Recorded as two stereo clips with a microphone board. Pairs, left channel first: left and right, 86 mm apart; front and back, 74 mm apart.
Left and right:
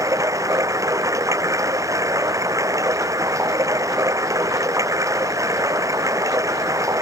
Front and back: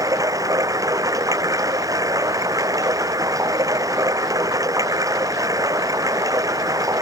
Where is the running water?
140° right.